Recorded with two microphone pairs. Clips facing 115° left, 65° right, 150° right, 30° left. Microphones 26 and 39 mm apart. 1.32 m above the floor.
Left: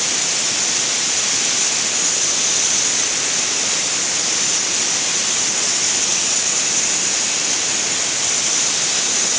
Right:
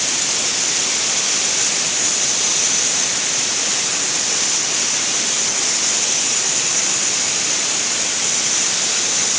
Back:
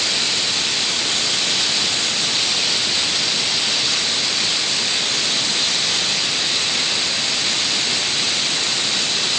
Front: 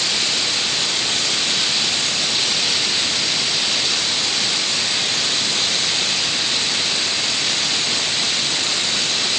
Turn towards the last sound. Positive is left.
No sound to turn to.